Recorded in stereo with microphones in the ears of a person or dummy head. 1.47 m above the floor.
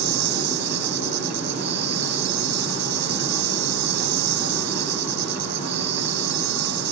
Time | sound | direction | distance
0.0 | an insect | 60° right (ahead or behind) | ?